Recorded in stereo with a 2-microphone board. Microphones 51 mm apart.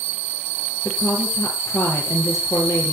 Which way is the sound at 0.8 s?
70° left (ahead or behind).